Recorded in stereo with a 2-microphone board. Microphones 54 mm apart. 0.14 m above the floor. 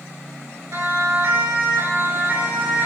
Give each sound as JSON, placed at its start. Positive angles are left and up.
{"t": 0.7, "sound": "a siren", "side_deg": -65, "distance_m": 5.0}